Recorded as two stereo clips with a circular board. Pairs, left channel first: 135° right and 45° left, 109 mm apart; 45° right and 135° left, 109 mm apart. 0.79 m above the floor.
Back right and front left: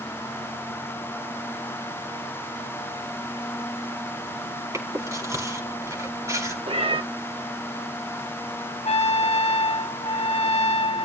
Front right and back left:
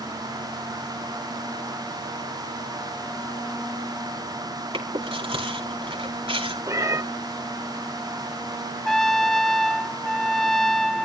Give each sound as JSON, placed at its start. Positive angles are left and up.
{"t": 4.7, "sound": "chewing", "azimuth_deg": 105, "distance_m": 4.0}
{"t": 6.7, "sound": "a cat meowing", "azimuth_deg": 75, "distance_m": 1.0}
{"t": 8.8, "sound": "a trumpet", "azimuth_deg": -130, "distance_m": 0.7}